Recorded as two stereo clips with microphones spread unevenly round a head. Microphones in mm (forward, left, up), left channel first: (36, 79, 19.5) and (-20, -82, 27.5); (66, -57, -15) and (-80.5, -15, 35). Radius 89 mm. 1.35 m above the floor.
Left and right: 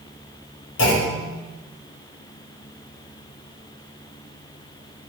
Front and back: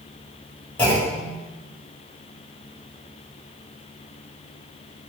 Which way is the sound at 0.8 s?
65° left.